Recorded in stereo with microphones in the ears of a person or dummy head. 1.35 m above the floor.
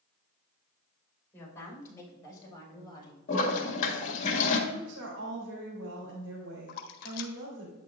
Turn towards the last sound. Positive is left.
turn(degrees=55)  # may be behind; listen again after turning